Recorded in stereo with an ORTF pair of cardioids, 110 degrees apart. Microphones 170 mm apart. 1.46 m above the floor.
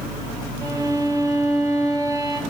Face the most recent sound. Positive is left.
turn(degrees=-20)